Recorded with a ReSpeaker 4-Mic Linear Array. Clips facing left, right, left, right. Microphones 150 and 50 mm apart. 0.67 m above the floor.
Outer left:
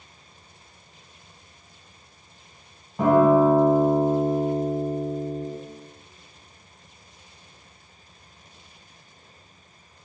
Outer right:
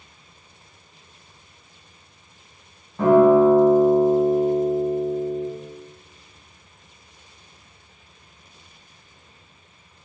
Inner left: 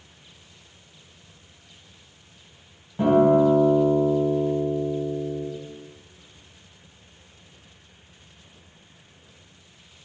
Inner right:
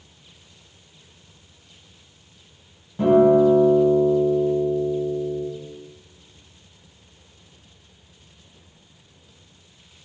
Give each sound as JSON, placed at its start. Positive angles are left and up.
{"t": 3.0, "sound": "a guitar", "side_deg": 15, "distance_m": 1.7}